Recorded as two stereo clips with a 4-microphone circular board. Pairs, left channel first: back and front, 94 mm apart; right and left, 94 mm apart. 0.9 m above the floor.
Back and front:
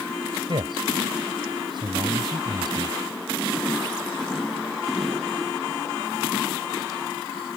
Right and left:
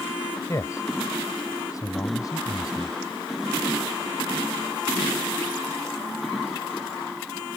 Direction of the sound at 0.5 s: 30° right.